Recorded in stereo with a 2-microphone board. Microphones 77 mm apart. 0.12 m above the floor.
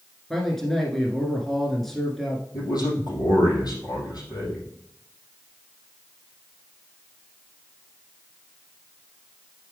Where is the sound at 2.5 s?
65° left (ahead or behind), 3.5 m.